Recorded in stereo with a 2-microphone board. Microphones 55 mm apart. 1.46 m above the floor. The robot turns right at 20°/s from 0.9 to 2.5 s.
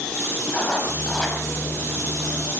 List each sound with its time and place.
0.5 s writing: 25° left (ahead or behind), 5 m; by 1.4 s 10° left (ahead or behind), 5 m